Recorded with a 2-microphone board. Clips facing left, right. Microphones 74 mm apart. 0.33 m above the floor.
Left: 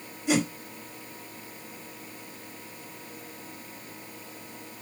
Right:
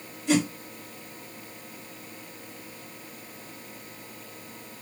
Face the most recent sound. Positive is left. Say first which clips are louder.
# right 2 dB
turn(degrees=15)  # may be behind; listen again after turning